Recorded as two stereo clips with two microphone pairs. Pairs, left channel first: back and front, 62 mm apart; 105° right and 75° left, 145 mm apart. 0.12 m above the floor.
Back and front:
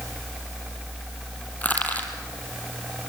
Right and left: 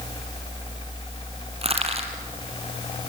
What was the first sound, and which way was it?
Crushing, 115° left.